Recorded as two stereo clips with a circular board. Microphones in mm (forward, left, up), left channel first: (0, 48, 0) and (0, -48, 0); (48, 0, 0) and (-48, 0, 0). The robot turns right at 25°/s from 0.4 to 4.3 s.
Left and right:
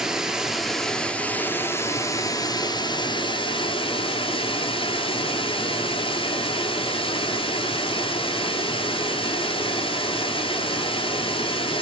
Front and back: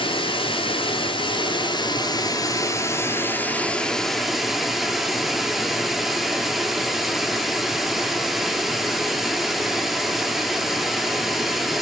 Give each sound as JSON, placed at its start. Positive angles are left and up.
{"t": 0.0, "sound": "running water", "azimuth_deg": -5, "distance_m": 0.9}